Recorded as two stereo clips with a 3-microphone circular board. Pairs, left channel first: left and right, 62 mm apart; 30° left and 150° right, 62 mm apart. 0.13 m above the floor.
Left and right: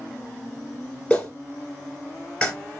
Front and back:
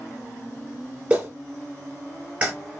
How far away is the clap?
About 1.9 m.